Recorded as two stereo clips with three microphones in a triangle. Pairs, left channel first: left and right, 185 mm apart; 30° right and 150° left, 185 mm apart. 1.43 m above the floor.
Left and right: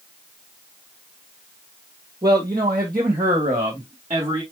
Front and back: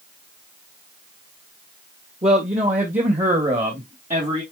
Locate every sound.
2.2 s a man speaking: 155° right, 1.8 m; by 4.4 s 160° right, 3.5 m